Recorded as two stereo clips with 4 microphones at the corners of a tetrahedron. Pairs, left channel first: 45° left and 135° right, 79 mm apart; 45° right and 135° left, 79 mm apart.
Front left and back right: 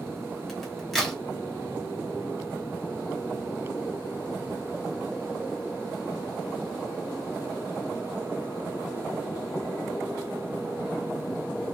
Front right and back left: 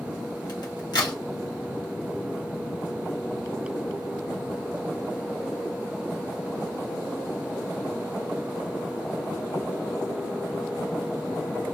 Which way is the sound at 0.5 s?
40° right.